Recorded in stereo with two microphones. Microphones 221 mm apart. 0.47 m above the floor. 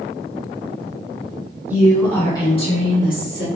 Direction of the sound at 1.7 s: 10° right (ahead or behind).